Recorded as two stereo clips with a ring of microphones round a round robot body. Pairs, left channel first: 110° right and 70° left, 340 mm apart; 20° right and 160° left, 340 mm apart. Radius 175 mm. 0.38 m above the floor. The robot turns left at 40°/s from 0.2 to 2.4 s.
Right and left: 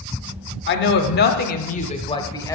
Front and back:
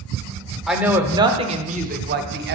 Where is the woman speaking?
115° right, 0.9 m; by 2.5 s 175° left, 0.9 m.